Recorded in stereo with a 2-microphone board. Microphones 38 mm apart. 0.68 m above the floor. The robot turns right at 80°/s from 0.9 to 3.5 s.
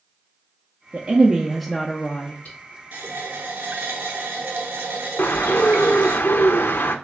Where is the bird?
75° left (ahead or behind), 0.5 m.